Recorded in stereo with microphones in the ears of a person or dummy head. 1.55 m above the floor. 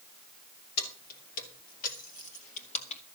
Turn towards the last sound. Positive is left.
turn(degrees=30)  # may be behind; listen again after turning